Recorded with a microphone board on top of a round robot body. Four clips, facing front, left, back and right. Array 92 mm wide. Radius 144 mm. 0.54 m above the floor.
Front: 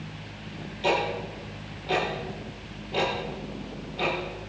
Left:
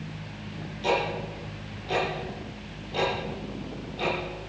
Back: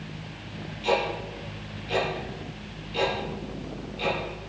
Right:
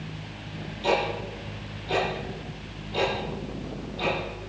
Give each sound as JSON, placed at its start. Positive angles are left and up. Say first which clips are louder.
{"t": 0.8, "sound": "ticking", "louder": "right 1 dB, even", "azimuth_deg": 15, "distance_m": 7.0}